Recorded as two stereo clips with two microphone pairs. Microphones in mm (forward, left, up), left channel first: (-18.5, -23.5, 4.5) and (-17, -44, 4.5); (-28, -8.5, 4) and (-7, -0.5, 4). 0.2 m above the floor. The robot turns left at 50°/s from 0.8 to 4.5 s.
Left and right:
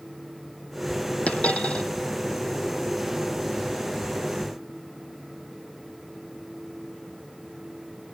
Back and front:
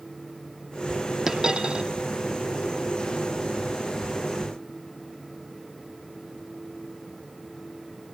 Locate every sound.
1.3 s a dropped coin: 90° left, 2.5 m; by 1.9 s 60° left, 2.5 m